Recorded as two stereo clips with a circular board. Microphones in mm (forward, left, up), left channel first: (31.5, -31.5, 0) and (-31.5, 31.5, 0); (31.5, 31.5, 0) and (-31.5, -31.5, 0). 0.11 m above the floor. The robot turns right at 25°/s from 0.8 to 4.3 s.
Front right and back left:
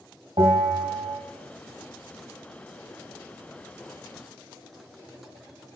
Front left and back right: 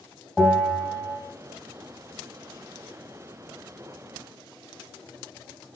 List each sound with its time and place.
0.4 s a bell: 135° left, 1.3 m; by 1.2 s 145° left, 1.3 m